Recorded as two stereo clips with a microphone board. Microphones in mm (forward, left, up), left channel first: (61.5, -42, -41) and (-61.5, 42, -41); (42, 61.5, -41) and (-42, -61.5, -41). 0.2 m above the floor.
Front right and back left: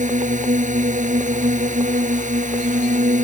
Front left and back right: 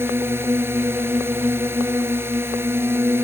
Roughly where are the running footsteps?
No running footsteps in this recording.